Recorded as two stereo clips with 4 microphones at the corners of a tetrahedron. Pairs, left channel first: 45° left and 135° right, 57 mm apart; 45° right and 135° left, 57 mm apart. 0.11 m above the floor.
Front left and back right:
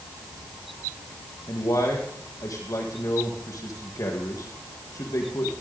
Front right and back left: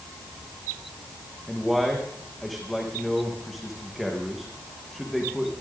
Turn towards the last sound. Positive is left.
turn(degrees=45)